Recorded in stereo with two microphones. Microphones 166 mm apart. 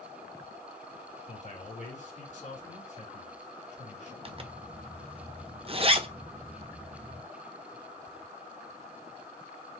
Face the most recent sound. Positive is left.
turn(degrees=-35)  # may be behind; listen again after turning